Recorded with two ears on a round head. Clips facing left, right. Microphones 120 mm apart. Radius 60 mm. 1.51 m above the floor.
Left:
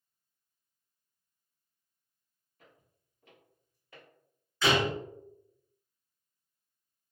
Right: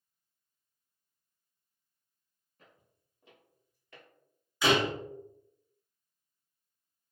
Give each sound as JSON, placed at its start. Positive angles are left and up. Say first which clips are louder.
{"t": 2.6, "sound": "footsteps", "louder": "left 1 dB", "side_deg": -35, "distance_m": 1.9}
{"t": 4.6, "sound": "a door slam", "louder": "right 1 dB", "side_deg": -10, "distance_m": 0.9}